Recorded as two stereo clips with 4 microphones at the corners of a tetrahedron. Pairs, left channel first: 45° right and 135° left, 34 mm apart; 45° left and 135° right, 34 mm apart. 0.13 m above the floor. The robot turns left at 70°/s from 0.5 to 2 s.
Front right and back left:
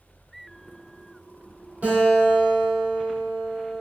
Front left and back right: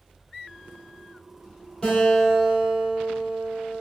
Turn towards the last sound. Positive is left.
turn(degrees=100)